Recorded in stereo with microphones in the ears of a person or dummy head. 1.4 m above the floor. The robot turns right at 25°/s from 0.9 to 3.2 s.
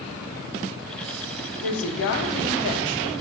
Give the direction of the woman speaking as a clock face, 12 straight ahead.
9 o'clock.